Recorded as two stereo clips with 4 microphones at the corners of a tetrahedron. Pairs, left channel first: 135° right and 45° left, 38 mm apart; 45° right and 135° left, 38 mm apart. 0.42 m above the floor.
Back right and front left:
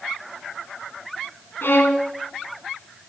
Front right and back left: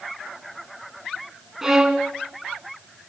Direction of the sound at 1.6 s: 150° right.